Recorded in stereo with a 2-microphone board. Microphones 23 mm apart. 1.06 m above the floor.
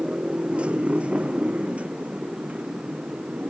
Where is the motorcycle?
55° right (ahead or behind); by 3.5 s 85° right.